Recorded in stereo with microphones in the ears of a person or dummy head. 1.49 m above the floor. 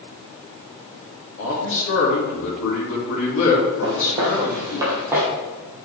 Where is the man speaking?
75° left (ahead or behind), 2.5 m.